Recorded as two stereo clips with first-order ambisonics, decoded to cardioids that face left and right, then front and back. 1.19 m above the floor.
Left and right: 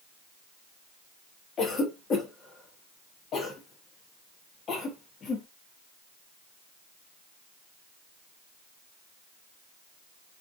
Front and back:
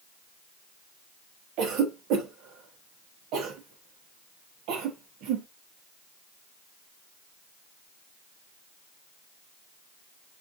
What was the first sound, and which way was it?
A cough, 150° left.